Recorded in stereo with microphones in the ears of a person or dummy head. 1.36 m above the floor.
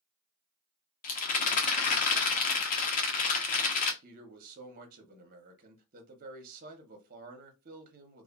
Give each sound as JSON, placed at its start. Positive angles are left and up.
{"t": 1.0, "sound": "a rattle", "side_deg": 40, "distance_m": 0.6}
{"t": 4.0, "sound": "a man speaking", "side_deg": -45, "distance_m": 0.8}